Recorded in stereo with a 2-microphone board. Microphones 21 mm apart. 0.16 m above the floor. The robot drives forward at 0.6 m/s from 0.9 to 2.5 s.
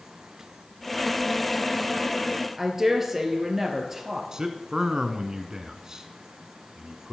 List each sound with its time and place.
2.6 s a woman speaking: 20° right (ahead or behind), 2.5 m
4.3 s a man speaking: 35° right (ahead or behind), 1.4 m